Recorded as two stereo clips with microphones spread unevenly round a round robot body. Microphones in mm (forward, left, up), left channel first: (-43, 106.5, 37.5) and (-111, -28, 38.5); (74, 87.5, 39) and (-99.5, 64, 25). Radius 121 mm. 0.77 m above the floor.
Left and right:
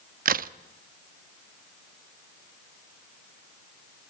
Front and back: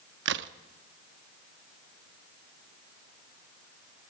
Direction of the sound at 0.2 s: 145° right.